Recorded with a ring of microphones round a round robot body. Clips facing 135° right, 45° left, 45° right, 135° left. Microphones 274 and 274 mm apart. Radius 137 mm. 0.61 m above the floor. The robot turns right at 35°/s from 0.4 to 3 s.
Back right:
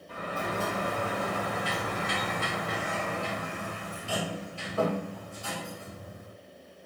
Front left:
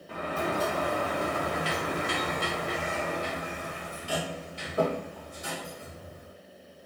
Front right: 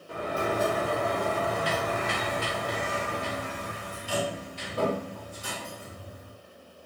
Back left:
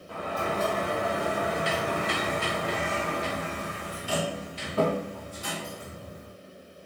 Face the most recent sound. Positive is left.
turn(degrees=115)